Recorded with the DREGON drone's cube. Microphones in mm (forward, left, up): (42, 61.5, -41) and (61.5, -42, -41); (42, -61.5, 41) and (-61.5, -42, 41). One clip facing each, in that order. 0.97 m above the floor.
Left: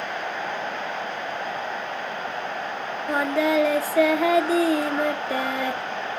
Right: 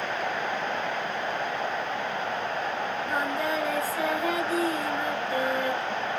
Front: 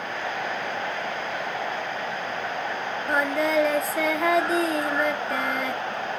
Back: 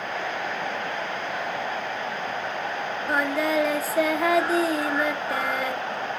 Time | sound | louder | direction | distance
3.1 | singing | left 9 dB, front 1 dB | 85° left | 1.2 m